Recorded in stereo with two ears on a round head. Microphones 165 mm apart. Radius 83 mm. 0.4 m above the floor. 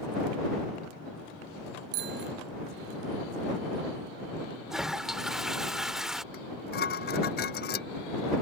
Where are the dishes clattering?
55° left (ahead or behind).